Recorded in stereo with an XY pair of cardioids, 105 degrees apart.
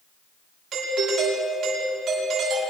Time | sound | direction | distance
0.7 | a doorbell | 60° right | 9.5 m